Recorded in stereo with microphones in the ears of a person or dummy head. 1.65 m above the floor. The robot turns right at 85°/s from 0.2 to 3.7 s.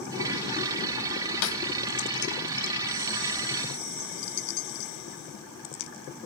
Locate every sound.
1.4 s a snare drum: 75° left (ahead or behind), 1.3 m; by 1.6 s 65° left (ahead or behind), 1.3 m